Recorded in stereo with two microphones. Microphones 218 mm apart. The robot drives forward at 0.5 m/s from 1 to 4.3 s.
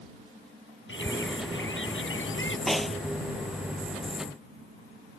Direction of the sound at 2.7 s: Centre (ahead or behind).